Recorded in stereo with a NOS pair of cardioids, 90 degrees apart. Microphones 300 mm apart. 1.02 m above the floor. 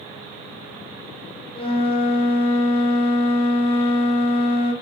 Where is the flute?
20° left, 3.5 m.